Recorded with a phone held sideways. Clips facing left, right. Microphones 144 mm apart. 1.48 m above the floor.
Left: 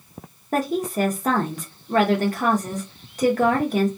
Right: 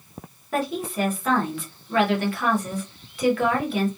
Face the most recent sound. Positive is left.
turn(degrees=40)  # may be behind; listen again after turning